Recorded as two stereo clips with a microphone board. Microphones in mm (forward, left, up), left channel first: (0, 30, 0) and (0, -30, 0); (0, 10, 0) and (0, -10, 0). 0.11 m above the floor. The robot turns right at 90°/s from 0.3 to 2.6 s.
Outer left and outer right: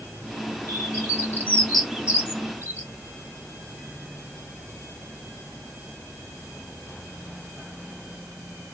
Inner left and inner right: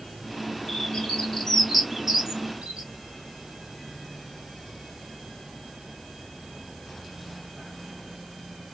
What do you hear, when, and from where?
0.7 s a bird: 55° left (ahead or behind), 2.0 m; by 2.9 s 50° right (ahead or behind), 2.0 m